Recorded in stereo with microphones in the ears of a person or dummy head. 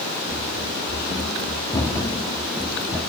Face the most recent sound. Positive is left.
turn(degrees=0)  # may be behind; listen again after turning